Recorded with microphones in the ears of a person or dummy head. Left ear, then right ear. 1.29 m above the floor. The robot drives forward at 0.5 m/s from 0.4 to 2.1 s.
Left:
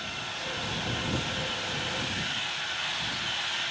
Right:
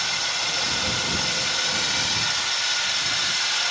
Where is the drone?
50° right (ahead or behind).